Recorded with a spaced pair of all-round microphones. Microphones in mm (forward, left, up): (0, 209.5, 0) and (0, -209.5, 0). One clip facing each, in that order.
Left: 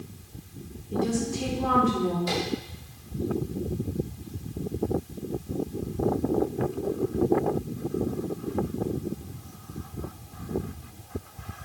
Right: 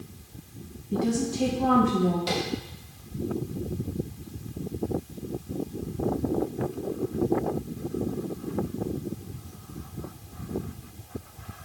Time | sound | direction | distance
0.9 | a woman speaking | 40° right (ahead or behind) | 1.2 m
2.3 | tapping | 80° right | 3 m